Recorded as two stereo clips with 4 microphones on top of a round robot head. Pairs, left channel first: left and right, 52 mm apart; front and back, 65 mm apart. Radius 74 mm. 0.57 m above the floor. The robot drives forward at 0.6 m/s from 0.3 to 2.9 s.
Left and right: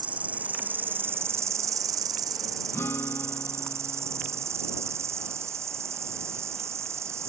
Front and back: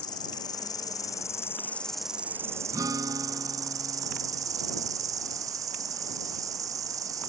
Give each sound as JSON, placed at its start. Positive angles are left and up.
{"t": 0.0, "sound": "an insect", "azimuth_deg": -25}
{"t": 2.7, "sound": "a guitar", "azimuth_deg": 145}